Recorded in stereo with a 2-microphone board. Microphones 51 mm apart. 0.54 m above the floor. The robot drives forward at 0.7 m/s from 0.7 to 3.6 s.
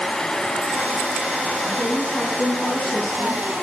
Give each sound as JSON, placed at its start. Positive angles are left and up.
{"t": 1.6, "sound": "a woman speaking", "side_deg": 10, "distance_m": 6.5}